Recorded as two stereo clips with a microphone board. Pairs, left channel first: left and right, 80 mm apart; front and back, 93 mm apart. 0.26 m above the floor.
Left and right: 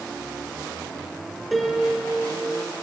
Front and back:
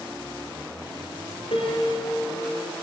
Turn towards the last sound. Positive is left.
turn(degrees=5)